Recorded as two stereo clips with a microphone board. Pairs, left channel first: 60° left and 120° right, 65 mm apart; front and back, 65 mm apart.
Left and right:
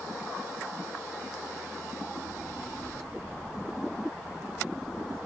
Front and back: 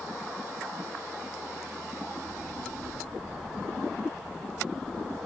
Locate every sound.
2.3 s a child speaking: 130° left, 3 m; by 5.2 s 85° left, 6 m